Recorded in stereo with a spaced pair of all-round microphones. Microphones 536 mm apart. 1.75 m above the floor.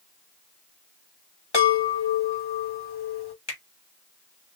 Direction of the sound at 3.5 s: 50° left (ahead or behind).